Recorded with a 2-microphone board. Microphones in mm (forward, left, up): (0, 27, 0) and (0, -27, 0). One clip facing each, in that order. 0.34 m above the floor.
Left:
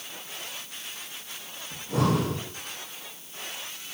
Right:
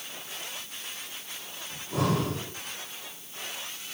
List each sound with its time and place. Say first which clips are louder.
1.7 s breathing: left 2 dB; 85° left, 4 m